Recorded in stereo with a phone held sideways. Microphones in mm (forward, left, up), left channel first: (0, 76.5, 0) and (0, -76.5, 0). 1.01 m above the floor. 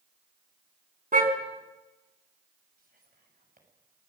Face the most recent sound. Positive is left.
turn(degrees=-70)  # may be behind; listen again after turning